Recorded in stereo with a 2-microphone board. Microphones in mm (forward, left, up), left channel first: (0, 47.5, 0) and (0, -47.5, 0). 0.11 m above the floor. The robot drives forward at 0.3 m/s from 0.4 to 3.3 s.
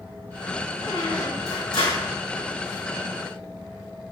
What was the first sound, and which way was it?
A squeak, 65° left (ahead or behind).